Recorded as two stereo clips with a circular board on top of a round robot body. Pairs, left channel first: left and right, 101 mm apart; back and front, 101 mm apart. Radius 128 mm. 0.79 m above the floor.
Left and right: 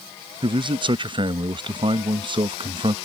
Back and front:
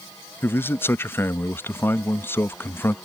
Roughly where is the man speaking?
Behind right.